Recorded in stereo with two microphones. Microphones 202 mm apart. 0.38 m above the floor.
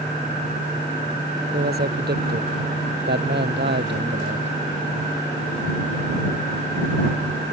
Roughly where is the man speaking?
Right.